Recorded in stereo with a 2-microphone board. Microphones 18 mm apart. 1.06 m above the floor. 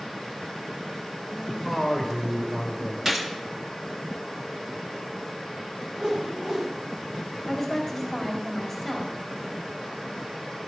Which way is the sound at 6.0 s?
30° right (ahead or behind).